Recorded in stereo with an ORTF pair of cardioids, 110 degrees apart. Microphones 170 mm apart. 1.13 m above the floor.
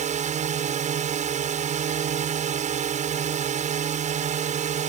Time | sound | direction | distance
0.0 | a drone | 45° right | ?